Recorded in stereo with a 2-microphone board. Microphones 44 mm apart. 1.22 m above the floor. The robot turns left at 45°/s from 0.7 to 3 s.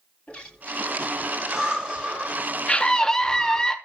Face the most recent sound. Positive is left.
turn(degrees=15)  # may be behind; listen again after turning